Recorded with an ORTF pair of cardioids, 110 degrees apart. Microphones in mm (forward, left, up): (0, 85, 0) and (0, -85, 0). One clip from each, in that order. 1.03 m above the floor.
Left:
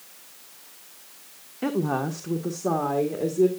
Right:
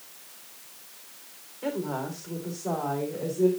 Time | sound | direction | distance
1.6 | a woman speaking | 60° left | 1.2 m